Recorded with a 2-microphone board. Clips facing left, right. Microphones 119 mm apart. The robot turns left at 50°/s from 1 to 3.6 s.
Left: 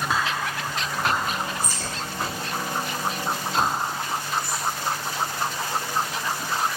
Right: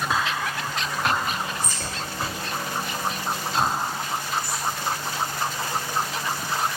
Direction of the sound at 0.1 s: Centre (ahead or behind).